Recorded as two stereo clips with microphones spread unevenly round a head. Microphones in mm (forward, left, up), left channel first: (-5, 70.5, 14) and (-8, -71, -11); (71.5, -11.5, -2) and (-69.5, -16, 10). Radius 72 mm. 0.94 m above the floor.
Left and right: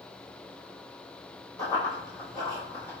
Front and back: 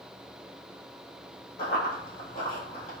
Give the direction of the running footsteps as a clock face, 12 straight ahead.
11 o'clock.